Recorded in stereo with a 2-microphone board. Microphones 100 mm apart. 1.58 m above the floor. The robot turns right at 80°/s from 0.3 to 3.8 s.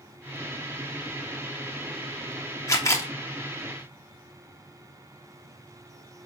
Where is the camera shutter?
100° left, 1.2 m; by 3.1 s 130° left, 1.2 m.